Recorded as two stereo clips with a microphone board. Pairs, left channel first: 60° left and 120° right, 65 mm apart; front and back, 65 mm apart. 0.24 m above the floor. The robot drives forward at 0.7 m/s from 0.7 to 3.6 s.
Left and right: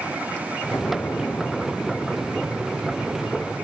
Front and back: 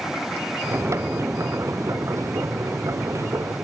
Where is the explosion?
115° left; by 3.6 s 125° left.